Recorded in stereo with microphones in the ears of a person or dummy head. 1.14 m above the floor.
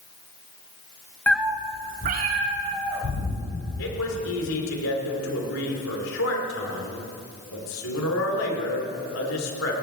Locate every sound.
1.3 s a cat meowing: 10° left (ahead or behind), 0.6 m; by 3.4 s 60° right (ahead or behind), 3.5 m
3.8 s a man speaking: 75° left (ahead or behind), 2.5 m